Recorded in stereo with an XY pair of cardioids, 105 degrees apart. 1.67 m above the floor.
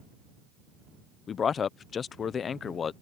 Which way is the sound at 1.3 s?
50° left.